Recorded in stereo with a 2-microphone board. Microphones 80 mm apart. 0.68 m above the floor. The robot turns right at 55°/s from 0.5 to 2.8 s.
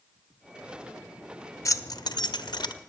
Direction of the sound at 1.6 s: 40° left (ahead or behind).